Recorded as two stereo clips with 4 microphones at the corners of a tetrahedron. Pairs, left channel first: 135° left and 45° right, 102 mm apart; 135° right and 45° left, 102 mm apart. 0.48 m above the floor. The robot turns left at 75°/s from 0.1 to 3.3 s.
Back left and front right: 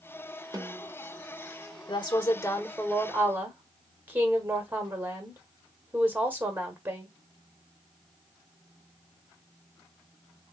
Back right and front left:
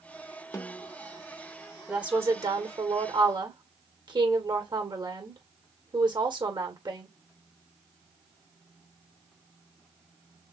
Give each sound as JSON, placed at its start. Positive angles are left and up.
{"t": 0.5, "sound": "a snare drum", "azimuth_deg": -85, "distance_m": 1.0}
{"t": 1.9, "sound": "a woman speaking", "azimuth_deg": 130, "distance_m": 1.6}